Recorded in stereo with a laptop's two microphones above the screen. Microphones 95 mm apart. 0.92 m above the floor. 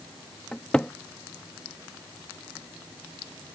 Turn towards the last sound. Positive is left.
turn(degrees=10)  # may be behind; listen again after turning